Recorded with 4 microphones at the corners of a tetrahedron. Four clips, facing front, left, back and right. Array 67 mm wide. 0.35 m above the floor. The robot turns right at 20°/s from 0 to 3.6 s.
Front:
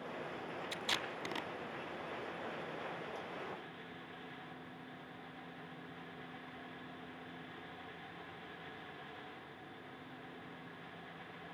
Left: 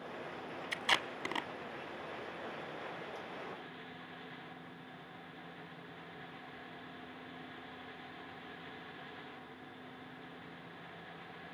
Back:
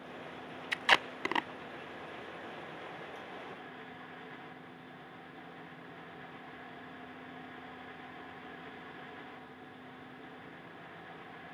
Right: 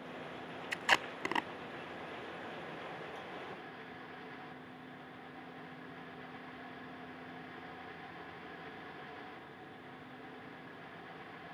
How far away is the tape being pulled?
About 0.7 m.